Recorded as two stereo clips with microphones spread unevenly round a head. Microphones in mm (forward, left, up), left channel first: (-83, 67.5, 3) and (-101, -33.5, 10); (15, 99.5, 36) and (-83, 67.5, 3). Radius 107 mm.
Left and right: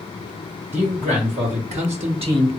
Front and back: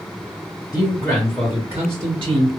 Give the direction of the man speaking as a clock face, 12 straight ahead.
2 o'clock.